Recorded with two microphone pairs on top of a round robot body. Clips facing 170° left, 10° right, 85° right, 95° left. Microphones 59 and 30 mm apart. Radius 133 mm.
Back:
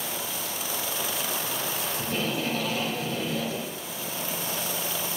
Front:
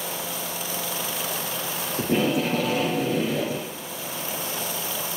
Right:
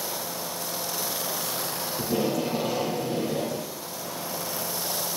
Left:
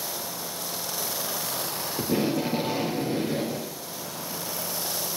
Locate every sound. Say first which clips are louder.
2.0 s tape being pulled: front 8 dB, left 1 dB; 40° left, 3 m